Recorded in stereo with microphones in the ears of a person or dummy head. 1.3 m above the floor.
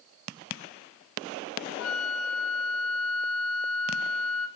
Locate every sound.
1.8 s a flute: 85° left, 2.5 m